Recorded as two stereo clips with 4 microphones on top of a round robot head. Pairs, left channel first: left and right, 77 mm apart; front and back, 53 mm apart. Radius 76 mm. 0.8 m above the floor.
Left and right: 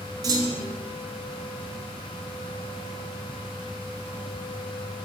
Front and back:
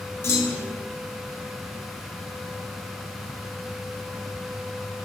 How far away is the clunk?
About 0.5 m.